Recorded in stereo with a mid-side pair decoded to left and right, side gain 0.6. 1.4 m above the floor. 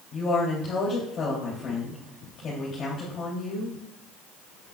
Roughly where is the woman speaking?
Ahead left.